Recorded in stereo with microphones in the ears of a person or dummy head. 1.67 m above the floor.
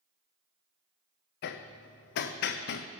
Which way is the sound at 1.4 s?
55° left (ahead or behind).